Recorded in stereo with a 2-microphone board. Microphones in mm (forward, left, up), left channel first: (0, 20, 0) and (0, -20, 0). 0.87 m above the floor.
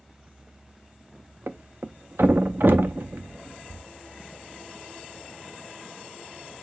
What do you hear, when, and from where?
1.5 s a thud: 70° right (ahead or behind), 0.6 m